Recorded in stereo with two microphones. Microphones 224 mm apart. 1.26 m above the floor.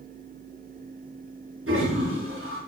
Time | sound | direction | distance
1.7 | a toilet flushing | 75° right (ahead or behind) | 8 m